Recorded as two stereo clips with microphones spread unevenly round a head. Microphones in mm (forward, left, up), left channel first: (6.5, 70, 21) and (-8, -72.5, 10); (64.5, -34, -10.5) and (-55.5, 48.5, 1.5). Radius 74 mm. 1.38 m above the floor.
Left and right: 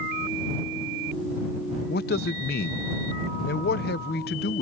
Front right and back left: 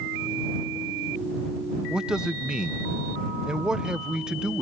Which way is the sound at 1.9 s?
60° left.